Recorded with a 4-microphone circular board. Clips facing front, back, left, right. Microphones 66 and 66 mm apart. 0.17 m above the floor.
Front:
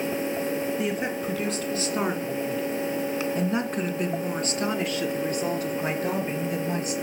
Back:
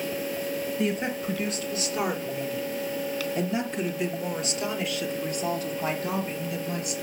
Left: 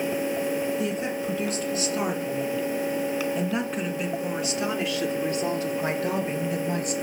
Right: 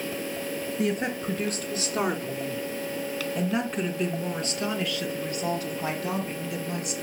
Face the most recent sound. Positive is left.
turn(degrees=45)